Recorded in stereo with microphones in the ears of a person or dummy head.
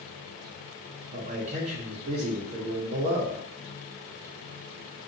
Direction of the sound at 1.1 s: 35° right (ahead or behind).